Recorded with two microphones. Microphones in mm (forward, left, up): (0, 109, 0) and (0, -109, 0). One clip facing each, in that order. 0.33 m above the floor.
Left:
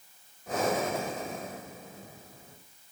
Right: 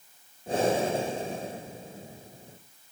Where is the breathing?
30° right (ahead or behind), 1.4 m.